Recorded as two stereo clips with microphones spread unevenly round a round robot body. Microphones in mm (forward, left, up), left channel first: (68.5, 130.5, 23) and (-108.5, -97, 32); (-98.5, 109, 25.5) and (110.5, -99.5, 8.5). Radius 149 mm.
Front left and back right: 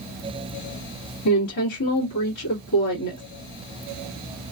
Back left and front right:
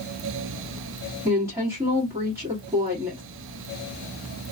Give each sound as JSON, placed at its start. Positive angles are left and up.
{"t": 1.2, "sound": "a woman speaking", "azimuth_deg": 35, "distance_m": 1.8}